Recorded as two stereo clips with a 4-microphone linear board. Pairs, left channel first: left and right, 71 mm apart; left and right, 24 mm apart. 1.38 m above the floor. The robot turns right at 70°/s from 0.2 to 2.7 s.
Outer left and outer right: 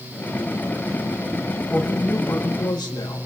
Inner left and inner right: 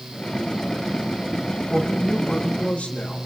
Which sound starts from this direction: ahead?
A woman speaking, at 1.7 s.